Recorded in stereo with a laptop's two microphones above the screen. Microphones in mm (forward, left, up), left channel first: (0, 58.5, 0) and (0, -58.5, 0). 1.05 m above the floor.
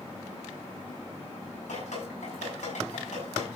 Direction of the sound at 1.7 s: 80° left.